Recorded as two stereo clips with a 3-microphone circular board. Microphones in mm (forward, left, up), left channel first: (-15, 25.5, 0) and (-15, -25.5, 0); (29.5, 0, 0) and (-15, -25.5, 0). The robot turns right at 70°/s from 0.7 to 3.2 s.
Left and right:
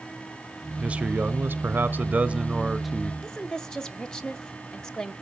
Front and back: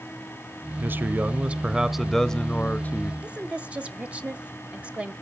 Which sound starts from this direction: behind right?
A man speaking, at 0.8 s.